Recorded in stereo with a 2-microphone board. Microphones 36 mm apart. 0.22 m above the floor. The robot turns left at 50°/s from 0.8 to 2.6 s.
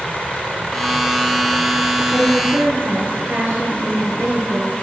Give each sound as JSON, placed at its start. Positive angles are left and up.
{"t": 2.1, "sound": "a woman speaking", "side_deg": -55, "distance_m": 4.0}